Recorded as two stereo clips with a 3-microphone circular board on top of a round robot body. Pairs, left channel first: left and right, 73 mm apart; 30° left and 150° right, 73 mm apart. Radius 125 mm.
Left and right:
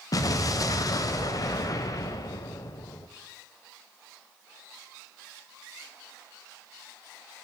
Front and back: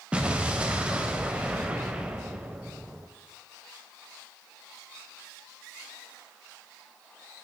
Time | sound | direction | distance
0.1 | an explosion | 135° left | 0.5 m